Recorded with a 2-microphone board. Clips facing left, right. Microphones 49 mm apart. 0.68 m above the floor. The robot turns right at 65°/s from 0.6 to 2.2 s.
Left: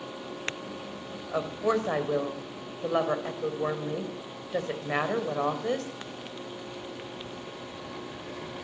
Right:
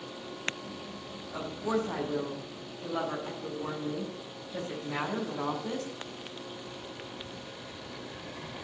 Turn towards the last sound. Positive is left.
turn(degrees=115)